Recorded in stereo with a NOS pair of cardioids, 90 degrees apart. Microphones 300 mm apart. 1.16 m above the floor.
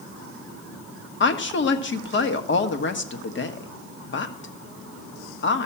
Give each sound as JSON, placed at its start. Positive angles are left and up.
{"t": 1.2, "sound": "a woman speaking", "azimuth_deg": 40, "distance_m": 1.6}